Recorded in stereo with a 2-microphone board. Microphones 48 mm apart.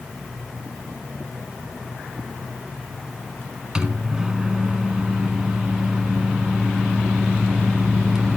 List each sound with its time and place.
3.8 s a microwave: 15° right (ahead or behind), 1.1 m